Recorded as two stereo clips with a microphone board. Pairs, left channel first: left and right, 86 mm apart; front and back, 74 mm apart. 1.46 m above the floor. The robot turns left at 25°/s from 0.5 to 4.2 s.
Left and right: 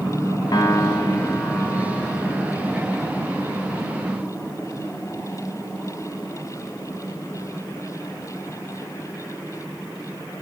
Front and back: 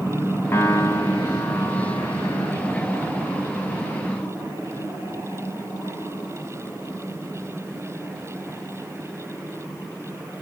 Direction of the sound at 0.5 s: 55° left.